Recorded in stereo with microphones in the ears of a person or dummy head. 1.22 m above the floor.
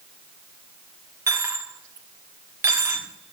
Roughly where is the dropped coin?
Centre.